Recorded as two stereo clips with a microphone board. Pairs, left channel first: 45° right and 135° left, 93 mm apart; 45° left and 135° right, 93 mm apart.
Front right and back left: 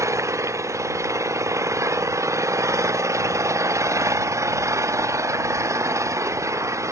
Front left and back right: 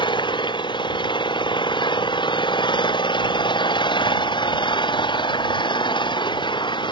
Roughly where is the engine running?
Left.